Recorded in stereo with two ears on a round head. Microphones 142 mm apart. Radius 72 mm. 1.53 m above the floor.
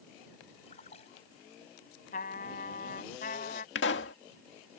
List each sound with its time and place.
0.7 s a splash: 40° left (ahead or behind)
2.1 s a trumpet: 50° left (ahead or behind)
3.8 s a pop: 85° left